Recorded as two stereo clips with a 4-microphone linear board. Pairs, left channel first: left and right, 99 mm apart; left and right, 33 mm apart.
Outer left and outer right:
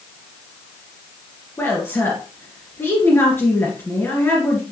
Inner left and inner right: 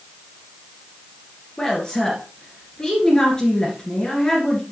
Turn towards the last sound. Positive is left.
turn(degrees=25)  # may be behind; listen again after turning